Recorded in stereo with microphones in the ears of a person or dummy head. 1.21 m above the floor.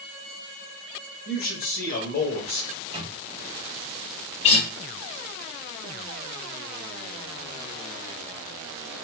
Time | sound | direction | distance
1.2 | a man speaking | 50° left (ahead or behind) | 1.2 m
2.7 | a microwave | 30° right (ahead or behind) | 0.7 m
4.4 | a guitar | 35° left (ahead or behind) | 0.8 m